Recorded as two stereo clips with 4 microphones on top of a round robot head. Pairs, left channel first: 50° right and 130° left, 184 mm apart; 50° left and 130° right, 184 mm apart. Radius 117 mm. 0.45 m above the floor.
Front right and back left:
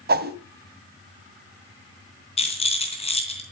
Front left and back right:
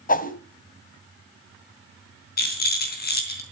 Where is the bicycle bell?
No bicycle bell in this recording.